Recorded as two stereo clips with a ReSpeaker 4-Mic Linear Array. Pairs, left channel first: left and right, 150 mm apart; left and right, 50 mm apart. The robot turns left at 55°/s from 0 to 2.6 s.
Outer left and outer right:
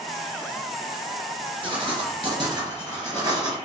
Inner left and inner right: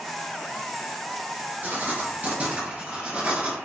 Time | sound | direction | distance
1.6 | writing | 75° right | 1.1 m